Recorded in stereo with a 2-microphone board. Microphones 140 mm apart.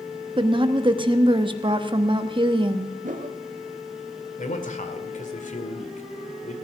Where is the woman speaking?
35° right (ahead or behind), 1.0 m.